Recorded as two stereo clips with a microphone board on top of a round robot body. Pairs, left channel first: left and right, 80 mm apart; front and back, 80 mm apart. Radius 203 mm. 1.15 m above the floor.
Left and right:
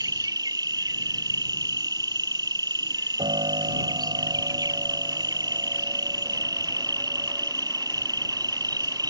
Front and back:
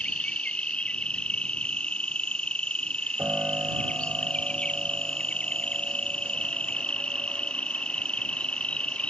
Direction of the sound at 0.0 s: 75° right.